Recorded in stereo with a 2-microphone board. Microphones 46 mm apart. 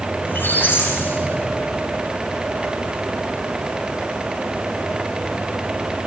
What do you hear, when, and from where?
0.2 s a squeak: 50° left (ahead or behind), 10 m